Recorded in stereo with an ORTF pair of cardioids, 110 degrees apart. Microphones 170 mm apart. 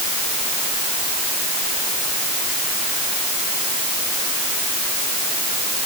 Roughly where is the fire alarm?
I don't hear a fire alarm.